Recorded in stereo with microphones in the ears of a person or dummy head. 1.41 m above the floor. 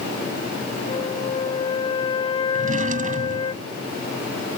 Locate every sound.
0.9 s a flute: 30° left (ahead or behind)
2.5 s a drawer: 40° right (ahead or behind)